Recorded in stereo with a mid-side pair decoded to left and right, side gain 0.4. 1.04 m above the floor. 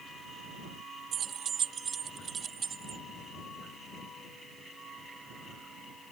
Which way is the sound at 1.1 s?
65° right.